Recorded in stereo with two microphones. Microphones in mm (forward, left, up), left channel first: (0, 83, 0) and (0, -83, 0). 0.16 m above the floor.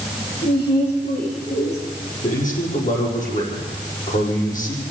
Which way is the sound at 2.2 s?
50° left (ahead or behind).